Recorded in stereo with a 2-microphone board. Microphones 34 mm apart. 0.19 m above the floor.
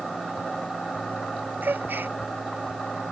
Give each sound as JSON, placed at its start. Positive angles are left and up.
{"t": 1.6, "sound": "a gasp", "side_deg": -70}